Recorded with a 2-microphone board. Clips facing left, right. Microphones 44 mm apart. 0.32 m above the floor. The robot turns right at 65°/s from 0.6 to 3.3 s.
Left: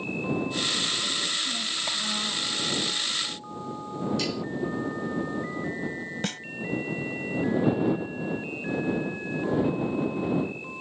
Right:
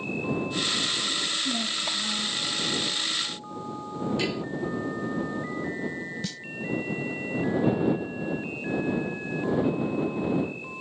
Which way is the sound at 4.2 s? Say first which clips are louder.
Right 1 dB; 20° right (ahead or behind).